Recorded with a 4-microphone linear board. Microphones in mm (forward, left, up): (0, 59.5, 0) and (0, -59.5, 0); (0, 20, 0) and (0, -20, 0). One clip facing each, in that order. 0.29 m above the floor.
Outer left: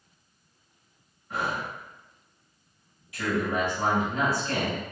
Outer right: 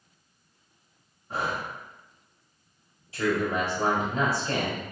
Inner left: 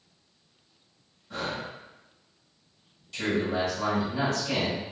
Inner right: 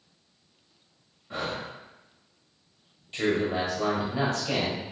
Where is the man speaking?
30° right (ahead or behind), 1.1 m.